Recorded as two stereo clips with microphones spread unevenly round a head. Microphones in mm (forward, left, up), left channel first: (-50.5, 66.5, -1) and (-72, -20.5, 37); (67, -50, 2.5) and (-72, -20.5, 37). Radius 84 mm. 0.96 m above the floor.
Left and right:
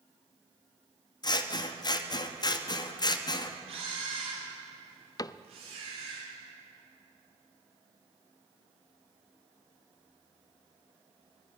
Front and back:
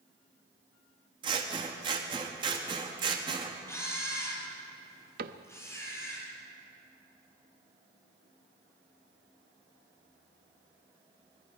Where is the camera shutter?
85° right, 7 m.